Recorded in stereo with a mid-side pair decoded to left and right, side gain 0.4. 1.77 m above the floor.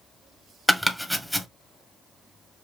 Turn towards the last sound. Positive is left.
turn(degrees=0)